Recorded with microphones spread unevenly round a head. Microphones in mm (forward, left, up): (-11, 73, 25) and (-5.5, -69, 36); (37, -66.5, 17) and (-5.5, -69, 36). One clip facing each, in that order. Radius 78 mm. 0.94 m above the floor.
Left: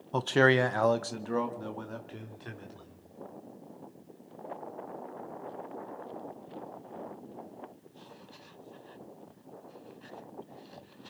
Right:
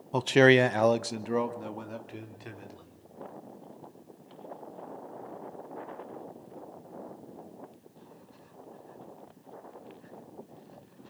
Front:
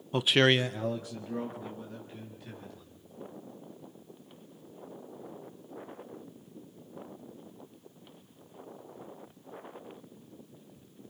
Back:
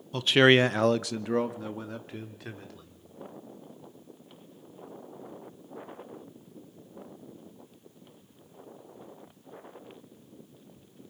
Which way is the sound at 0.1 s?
5° right.